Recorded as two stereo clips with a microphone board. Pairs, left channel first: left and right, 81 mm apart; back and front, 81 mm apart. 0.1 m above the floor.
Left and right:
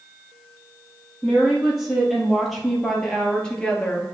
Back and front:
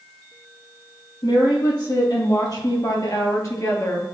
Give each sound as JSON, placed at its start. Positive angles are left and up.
{"t": 1.2, "sound": "a woman speaking", "azimuth_deg": -175, "distance_m": 3.0}